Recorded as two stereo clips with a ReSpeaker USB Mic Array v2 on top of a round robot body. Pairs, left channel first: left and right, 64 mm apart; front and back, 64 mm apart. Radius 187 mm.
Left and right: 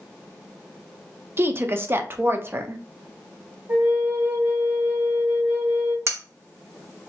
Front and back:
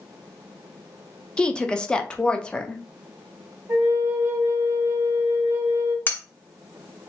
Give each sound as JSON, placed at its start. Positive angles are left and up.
{"t": 1.4, "sound": "a woman speaking", "azimuth_deg": -70, "distance_m": 0.9}
{"t": 3.7, "sound": "a flute", "azimuth_deg": -130, "distance_m": 2.0}
{"t": 6.1, "sound": "cutlery clinking", "azimuth_deg": -60, "distance_m": 1.0}